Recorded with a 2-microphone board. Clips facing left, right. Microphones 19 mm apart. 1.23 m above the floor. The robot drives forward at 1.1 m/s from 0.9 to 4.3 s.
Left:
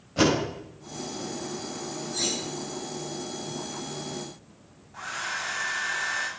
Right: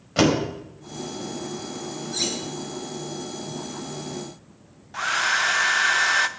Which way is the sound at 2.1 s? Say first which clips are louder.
Right 2 dB; 40° right (ahead or behind).